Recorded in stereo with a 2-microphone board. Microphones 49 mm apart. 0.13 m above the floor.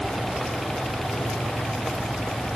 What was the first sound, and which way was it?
Only background noise.